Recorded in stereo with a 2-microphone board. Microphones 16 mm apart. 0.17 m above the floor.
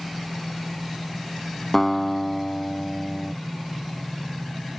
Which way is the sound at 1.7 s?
15° left (ahead or behind).